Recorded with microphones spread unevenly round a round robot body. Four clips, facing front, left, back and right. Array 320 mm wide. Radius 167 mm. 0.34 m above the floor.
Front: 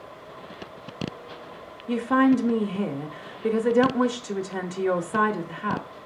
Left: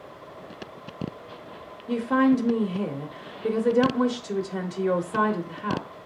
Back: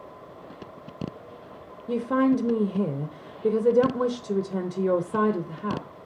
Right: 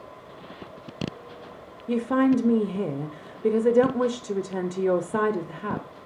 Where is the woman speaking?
120° right, 0.8 m.